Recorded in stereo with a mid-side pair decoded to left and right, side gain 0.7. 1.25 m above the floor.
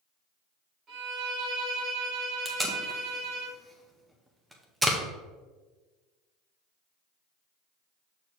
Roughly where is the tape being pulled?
Ahead.